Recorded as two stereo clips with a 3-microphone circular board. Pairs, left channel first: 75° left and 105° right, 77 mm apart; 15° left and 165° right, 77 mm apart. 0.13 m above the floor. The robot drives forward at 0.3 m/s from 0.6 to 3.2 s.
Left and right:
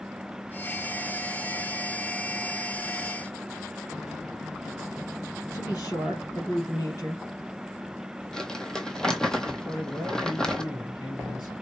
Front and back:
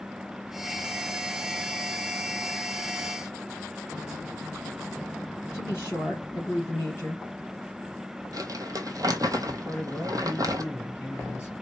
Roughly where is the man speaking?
Left.